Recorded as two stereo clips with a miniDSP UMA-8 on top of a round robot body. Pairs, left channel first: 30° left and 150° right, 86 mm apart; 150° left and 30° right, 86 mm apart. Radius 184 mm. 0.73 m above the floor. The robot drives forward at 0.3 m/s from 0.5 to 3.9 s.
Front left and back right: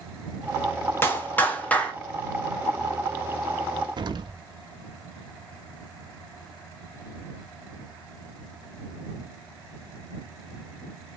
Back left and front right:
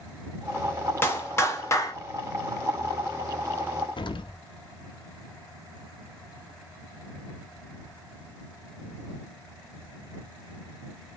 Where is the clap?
90° left, 1.3 m; by 1.9 s 105° left, 1.4 m.